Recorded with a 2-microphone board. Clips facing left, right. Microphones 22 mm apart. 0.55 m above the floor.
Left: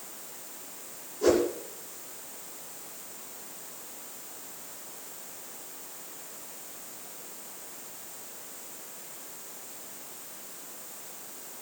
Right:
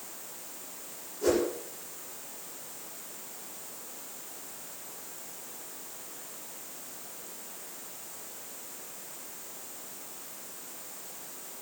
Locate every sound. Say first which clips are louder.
1.2 s a whoosh: left 3 dB; 25° left (ahead or behind), 6.5 m